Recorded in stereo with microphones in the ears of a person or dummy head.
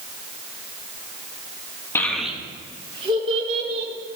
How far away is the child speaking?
About 1.2 m.